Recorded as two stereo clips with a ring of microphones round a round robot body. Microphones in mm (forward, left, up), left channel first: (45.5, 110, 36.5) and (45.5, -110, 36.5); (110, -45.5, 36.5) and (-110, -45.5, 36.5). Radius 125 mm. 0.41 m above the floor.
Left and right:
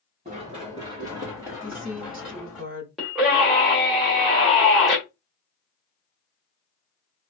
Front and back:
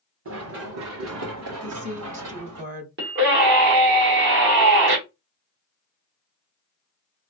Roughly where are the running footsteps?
Behind right.